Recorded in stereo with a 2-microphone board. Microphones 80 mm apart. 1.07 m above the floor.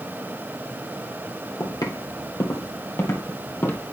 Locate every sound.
1.6 s footsteps: 55° left (ahead or behind), 2 m; by 3.8 s 25° left (ahead or behind), 2.5 m